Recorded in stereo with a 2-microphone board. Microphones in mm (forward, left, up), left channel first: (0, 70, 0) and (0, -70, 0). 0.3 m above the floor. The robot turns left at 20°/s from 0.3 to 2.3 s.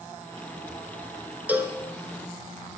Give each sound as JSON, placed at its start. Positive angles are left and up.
{"t": 1.5, "sound": "a cowbell", "side_deg": -10, "distance_m": 0.8}